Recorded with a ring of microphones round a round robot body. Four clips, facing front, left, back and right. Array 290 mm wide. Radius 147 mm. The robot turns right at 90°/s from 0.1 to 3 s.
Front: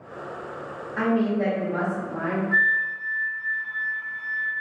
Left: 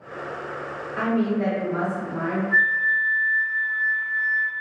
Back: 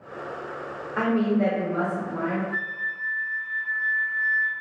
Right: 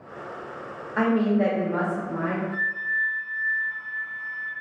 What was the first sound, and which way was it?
A woman speaking, 145° right.